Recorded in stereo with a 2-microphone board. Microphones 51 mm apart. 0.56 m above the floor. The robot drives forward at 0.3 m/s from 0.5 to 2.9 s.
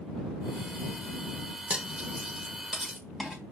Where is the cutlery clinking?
20° right (ahead or behind), 0.9 m; by 3.4 s 15° right (ahead or behind), 1.2 m.